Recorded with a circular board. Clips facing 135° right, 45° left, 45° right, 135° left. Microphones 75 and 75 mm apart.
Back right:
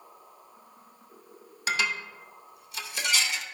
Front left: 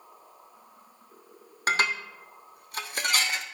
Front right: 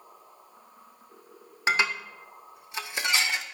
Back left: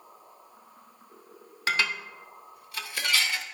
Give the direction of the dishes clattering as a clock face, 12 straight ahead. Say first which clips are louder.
Front left 3 dB, front right 2 dB; 11 o'clock.